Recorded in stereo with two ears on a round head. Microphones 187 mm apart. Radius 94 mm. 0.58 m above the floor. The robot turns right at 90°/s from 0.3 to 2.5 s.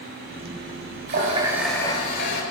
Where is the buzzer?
I don't hear a buzzer.